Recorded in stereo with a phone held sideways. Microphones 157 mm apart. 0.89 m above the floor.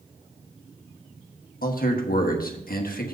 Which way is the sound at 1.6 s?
65° left (ahead or behind).